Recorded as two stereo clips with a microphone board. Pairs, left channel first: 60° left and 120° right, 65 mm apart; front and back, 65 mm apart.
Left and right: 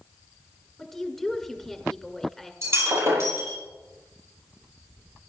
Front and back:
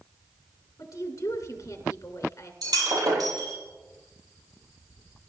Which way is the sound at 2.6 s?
165° right.